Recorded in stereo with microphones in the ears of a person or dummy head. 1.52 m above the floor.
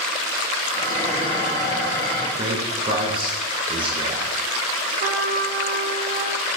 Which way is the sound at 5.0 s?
40° right (ahead or behind).